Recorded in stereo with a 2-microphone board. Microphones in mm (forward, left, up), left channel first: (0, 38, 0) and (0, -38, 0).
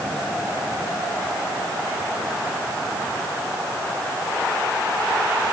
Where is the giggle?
No giggle in this recording.